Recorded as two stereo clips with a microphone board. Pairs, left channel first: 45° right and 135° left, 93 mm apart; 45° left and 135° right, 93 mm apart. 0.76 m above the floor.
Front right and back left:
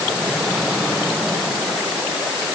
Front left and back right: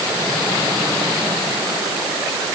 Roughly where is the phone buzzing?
No phone buzzing in this recording.